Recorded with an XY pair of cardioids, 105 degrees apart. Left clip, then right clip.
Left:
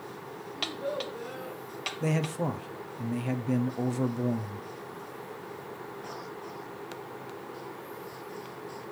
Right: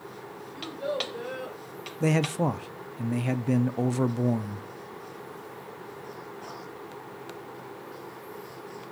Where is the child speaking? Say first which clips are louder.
Right 2 dB; 55° right, 4 m; by 1.6 s 65° right, 3.5 m.